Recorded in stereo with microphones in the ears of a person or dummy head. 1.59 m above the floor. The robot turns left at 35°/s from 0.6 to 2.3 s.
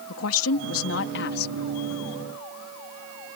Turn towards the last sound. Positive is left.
turn(degrees=25)